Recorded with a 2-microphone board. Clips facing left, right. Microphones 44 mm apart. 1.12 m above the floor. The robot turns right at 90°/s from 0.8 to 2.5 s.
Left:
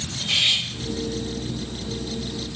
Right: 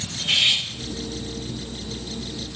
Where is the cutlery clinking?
55° right (ahead or behind), 2.5 m.